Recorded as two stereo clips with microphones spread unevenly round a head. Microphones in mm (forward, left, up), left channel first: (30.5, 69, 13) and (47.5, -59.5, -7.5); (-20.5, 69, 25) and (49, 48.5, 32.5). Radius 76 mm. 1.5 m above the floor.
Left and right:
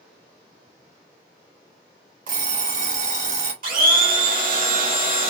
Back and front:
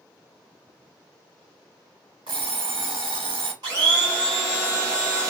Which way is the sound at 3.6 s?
75° right.